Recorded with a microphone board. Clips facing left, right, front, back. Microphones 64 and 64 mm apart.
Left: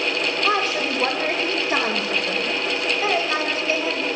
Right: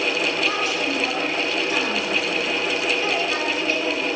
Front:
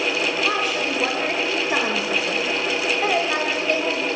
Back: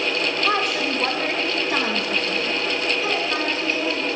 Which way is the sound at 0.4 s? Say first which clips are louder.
Left 2 dB, back 1 dB; 95° left.